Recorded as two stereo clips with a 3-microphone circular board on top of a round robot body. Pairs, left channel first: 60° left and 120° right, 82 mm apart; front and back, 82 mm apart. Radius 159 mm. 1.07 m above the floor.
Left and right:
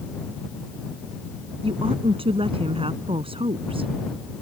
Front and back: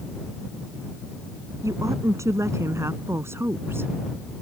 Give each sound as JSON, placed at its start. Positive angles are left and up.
{"t": 1.6, "sound": "a woman speaking", "azimuth_deg": -125}